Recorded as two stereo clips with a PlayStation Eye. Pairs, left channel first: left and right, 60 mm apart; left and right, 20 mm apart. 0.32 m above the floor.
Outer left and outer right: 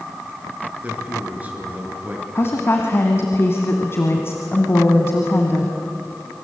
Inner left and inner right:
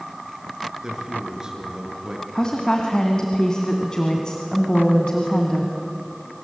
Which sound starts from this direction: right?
A man speaking, at 0.8 s.